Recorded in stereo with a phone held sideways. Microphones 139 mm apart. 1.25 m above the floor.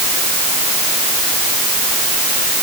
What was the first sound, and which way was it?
Only background noise.